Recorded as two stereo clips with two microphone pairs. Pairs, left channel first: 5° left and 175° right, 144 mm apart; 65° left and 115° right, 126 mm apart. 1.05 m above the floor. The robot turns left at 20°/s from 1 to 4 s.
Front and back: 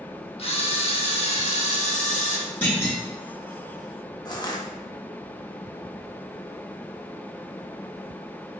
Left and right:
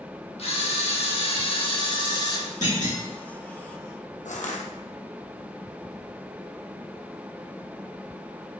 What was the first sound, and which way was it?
A camera shutter, 40° left.